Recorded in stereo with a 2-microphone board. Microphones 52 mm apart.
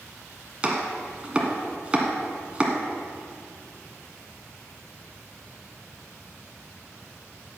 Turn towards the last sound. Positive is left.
turn(degrees=-20)  # may be behind; listen again after turning